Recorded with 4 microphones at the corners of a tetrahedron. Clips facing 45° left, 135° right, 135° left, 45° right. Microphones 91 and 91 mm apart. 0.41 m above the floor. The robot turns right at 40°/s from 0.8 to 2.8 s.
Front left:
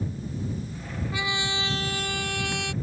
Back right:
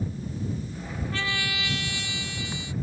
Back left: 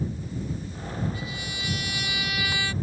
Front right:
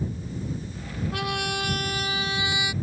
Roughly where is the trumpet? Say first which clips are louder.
Front left 2 dB, front right 7 dB; ahead right.